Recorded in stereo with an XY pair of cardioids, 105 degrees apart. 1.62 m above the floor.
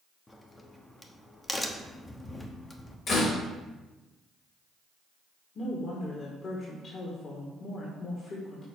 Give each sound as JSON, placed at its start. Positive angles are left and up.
{"t": 0.3, "sound": "a crack", "azimuth_deg": 25, "distance_m": 0.9}
{"t": 3.1, "sound": "a door slam", "azimuth_deg": 50, "distance_m": 2.0}
{"t": 5.5, "sound": "a woman speaking", "azimuth_deg": 45, "distance_m": 1.6}